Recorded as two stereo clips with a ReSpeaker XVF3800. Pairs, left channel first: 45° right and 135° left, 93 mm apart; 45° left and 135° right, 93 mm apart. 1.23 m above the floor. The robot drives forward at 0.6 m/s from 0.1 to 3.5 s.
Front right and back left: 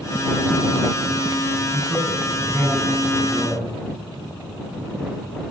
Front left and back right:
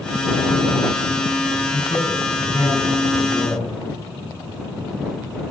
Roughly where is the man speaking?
Ahead left.